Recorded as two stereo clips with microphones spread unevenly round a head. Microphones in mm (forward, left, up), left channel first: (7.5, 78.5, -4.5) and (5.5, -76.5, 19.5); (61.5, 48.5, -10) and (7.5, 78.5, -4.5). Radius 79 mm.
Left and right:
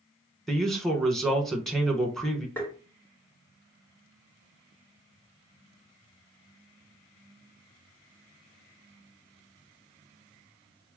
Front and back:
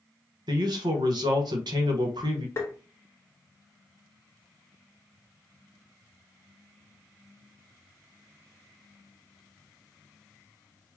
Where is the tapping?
5° left, 1.0 m.